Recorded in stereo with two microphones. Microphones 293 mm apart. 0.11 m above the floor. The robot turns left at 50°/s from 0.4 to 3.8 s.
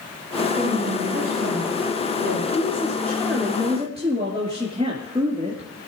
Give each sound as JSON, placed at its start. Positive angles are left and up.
{"t": 0.6, "sound": "a woman speaking", "azimuth_deg": -10, "distance_m": 6.0}
{"t": 2.5, "sound": "a woman speaking", "azimuth_deg": 35, "distance_m": 2.0}